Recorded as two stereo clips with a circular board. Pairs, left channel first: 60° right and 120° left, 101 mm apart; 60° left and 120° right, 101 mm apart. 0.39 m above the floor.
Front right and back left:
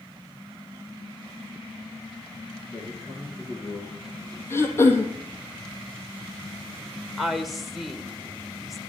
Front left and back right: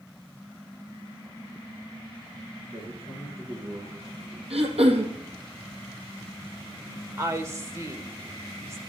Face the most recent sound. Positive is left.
turn(degrees=-150)